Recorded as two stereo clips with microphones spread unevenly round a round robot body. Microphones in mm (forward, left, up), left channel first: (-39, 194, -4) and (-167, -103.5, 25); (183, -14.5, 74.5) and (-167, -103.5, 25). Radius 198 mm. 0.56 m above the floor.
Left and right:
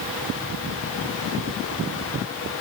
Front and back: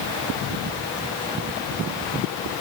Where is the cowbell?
I don't hear a cowbell.